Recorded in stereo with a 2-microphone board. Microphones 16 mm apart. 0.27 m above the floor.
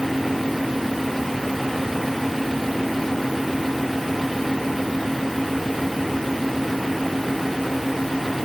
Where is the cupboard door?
No cupboard door in this recording.